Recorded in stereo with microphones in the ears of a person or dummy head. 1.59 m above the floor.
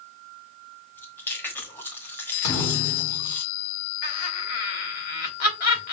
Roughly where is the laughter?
Left.